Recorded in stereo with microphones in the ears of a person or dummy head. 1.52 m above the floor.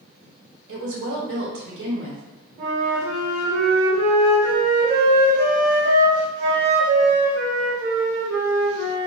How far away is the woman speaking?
About 1.2 m.